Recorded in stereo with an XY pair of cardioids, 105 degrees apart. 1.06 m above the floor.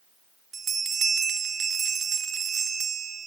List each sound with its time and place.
0.5 s a bell: 45° right, 0.6 m